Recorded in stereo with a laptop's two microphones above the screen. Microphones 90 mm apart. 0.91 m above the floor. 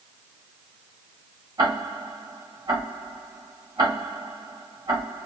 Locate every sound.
1.6 s ticking: 40° right (ahead or behind), 1.2 m